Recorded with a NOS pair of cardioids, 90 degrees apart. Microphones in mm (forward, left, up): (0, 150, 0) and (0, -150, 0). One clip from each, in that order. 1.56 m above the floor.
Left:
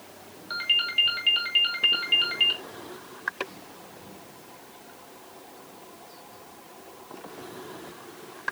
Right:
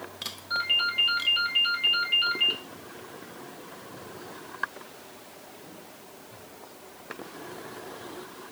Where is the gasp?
I don't hear a gasp.